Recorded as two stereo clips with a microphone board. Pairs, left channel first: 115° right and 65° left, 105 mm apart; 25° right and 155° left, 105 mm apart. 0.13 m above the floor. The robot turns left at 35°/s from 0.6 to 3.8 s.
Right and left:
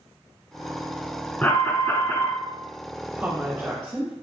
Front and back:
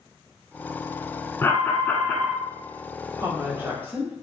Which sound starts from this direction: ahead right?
An alarm, at 1.4 s.